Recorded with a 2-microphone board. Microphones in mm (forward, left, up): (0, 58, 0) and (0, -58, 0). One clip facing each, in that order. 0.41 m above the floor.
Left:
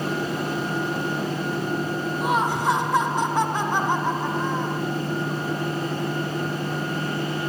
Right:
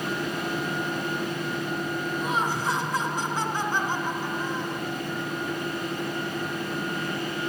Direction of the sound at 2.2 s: 65° left (ahead or behind).